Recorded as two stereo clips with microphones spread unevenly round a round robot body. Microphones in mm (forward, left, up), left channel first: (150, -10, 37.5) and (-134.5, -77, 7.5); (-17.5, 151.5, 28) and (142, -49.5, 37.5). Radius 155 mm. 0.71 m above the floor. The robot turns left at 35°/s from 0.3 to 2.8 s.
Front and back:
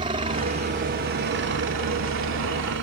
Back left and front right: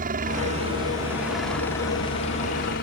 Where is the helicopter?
105° right; by 2.8 s 170° left.